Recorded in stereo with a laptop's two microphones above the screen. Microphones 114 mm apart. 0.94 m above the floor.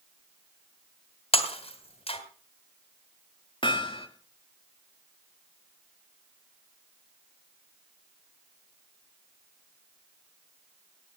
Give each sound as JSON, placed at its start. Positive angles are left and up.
{"t": 1.3, "sound": "breaking glass", "side_deg": 60, "distance_m": 2.5}
{"t": 3.6, "sound": "hammering", "side_deg": 50, "distance_m": 1.8}